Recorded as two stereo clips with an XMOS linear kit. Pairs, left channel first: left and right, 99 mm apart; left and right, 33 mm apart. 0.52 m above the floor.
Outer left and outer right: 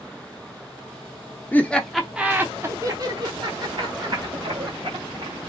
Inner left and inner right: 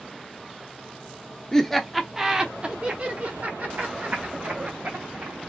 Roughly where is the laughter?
Centre.